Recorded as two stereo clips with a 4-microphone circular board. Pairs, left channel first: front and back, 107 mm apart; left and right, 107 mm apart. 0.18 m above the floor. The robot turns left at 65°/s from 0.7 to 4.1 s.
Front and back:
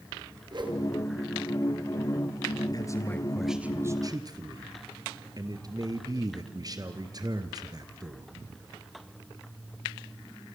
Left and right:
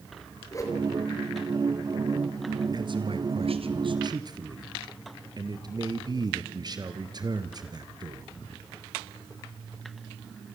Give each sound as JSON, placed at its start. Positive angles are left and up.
{"t": 0.5, "sound": "a whoosh", "azimuth_deg": 145, "distance_m": 4.0}
{"t": 2.7, "sound": "a man speaking", "azimuth_deg": -45, "distance_m": 2.5}